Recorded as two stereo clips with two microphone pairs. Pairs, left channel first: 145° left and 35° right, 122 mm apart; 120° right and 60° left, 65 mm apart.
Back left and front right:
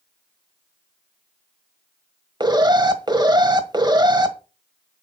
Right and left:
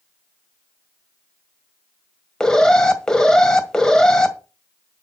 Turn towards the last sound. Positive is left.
turn(degrees=-45)